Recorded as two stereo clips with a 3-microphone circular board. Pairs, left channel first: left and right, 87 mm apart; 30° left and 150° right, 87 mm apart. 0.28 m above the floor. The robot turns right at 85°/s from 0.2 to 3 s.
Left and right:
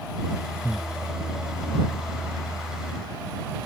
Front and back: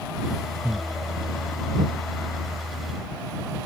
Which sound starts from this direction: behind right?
Breathing, at 0.6 s.